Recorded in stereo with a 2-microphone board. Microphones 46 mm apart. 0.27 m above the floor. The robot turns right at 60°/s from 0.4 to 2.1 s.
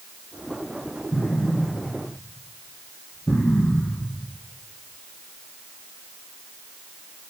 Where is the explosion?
35° left (ahead or behind), 4.5 m; by 4.2 s 85° left, 4.5 m.